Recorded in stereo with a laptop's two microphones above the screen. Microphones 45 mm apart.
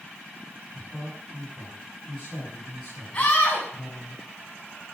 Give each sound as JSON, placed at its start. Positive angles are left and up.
{"t": 0.7, "sound": "a man speaking", "side_deg": 5, "distance_m": 6.5}
{"t": 3.1, "sound": "a scream", "side_deg": 25, "distance_m": 7.5}